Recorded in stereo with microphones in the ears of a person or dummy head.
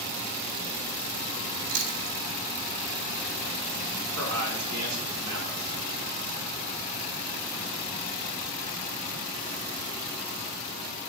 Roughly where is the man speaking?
Right.